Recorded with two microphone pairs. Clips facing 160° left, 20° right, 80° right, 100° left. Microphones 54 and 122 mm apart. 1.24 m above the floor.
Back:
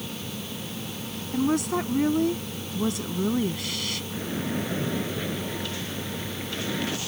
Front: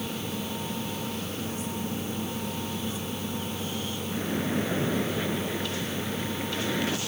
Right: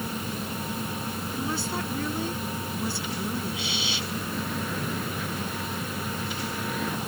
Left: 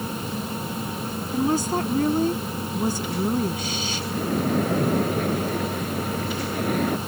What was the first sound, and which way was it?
A woman speaking, 150° left.